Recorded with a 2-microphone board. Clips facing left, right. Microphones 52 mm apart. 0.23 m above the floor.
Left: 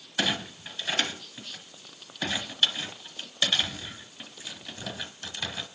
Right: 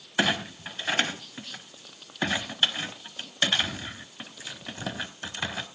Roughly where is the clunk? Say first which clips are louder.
Right 3 dB; right.